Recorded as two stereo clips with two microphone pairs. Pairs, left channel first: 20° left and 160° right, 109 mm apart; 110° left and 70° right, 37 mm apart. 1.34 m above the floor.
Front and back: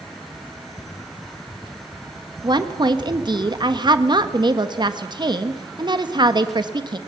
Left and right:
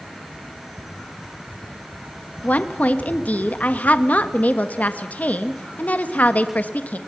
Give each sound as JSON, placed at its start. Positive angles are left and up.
{"t": 2.4, "sound": "a woman speaking", "azimuth_deg": 155, "distance_m": 1.3}